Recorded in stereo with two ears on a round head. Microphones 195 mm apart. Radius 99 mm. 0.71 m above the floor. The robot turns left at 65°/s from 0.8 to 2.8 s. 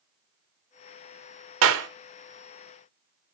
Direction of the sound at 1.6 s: 70° right (ahead or behind).